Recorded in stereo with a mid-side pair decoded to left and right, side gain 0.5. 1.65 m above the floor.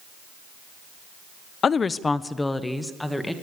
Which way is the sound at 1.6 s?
45° left.